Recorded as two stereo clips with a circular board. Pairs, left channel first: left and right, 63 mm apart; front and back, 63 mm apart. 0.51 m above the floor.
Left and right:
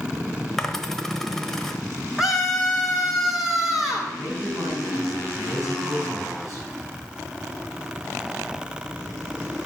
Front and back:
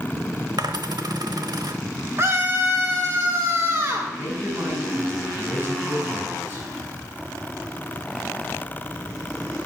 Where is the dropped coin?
175° left, 0.9 m.